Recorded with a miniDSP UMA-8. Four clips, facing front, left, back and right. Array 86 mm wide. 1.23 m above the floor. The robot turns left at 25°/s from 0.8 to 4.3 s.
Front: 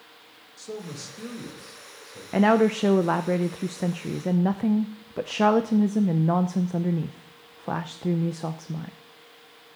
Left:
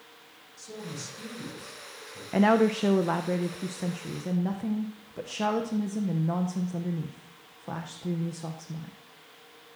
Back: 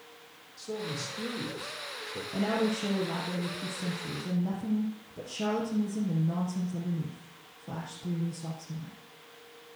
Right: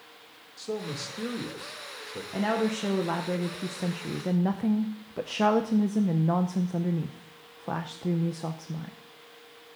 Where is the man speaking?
80° right, 2 m; by 2.2 s 120° right, 2 m.